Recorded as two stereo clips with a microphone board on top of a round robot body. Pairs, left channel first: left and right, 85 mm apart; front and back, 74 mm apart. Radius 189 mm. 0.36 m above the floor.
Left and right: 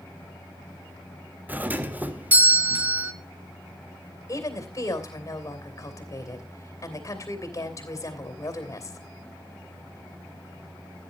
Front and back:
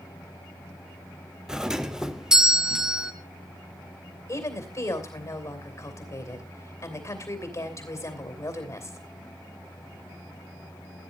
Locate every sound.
1.5 s a doorbell: 115° right, 1.6 m
4.3 s a woman speaking: 40° left, 3 m